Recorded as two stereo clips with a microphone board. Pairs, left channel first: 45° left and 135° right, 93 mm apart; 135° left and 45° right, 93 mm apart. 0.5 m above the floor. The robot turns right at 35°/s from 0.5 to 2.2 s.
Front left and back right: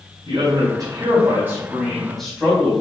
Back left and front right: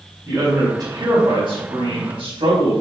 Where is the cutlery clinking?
No cutlery clinking in this recording.